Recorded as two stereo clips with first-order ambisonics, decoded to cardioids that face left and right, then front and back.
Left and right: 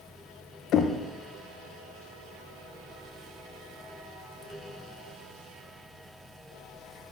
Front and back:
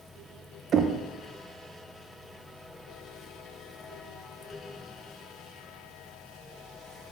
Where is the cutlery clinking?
I don't hear cutlery clinking.